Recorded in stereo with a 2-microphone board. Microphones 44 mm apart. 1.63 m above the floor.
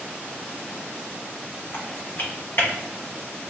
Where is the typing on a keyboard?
55° left (ahead or behind), 0.7 m.